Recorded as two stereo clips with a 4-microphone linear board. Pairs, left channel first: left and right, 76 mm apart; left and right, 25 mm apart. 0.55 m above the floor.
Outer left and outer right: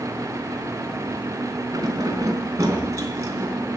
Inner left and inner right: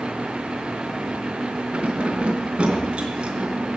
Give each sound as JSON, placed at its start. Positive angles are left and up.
{"t": 1.7, "sound": "keys jangling", "side_deg": -50, "distance_m": 3.5}